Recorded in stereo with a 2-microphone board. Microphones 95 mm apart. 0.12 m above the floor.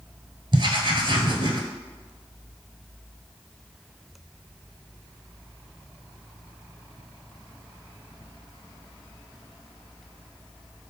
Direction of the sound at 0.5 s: 55° right (ahead or behind).